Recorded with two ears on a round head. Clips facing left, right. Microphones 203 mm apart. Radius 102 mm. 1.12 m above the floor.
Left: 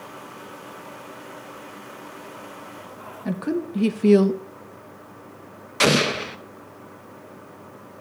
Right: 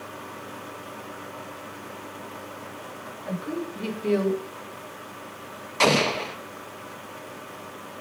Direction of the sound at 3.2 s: 60° left (ahead or behind).